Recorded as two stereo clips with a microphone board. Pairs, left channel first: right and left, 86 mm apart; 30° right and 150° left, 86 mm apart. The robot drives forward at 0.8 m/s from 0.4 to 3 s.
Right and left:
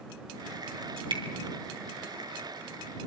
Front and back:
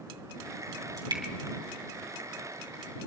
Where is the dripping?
110° left, 3 m.